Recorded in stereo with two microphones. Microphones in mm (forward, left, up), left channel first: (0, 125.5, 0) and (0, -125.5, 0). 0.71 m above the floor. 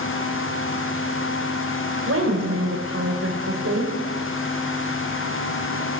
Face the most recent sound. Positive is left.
turn(degrees=-70)  # may be behind; listen again after turning